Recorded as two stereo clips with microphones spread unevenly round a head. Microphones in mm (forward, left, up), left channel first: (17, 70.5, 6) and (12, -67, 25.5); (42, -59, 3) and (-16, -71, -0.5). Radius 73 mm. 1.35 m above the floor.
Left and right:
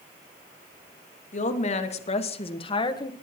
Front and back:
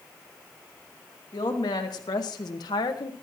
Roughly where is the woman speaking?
Ahead left.